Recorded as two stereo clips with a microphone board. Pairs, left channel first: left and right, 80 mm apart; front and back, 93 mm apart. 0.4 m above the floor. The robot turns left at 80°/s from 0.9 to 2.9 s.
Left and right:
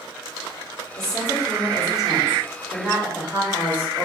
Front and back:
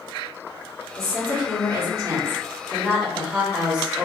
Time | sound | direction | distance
1.0 | a woman speaking | 85° right | 1.4 m